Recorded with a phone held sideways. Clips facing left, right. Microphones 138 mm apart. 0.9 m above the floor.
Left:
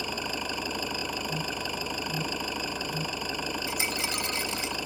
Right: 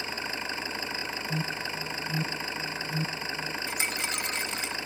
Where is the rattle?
35° left (ahead or behind).